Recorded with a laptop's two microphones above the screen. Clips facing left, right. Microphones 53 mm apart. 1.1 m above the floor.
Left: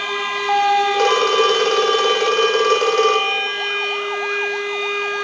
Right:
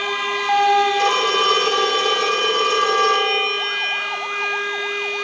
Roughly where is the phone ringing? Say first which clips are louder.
Left 2 dB; left.